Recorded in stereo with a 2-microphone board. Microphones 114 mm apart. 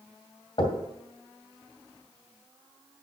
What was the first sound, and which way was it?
Knocking, 50° left (ahead or behind).